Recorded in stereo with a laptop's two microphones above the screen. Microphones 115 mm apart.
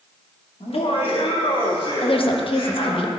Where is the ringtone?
I don't hear a ringtone.